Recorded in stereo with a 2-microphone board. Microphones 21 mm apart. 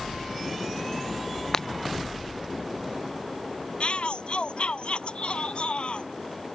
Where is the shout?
60° left (ahead or behind).